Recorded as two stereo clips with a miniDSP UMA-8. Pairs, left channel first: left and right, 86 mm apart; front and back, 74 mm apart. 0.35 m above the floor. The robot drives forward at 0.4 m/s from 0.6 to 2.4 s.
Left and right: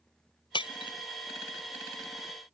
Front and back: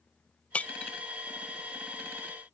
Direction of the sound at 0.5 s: 70° left.